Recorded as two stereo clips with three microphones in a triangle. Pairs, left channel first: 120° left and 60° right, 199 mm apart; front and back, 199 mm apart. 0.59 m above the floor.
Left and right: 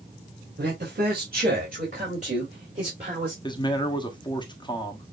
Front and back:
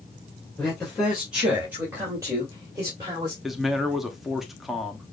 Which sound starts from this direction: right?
A man speaking, at 0.6 s.